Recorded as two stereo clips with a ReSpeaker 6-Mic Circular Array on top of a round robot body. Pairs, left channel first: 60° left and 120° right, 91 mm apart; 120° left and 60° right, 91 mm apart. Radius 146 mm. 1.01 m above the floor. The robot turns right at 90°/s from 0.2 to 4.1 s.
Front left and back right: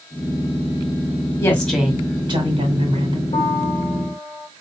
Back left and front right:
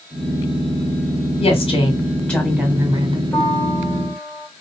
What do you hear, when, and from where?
1.4 s a woman speaking: 115° left, 1.8 m; by 3.2 s 80° right, 1.8 m
3.3 s a piano: 35° left, 2 m; by 4.5 s 105° left, 2 m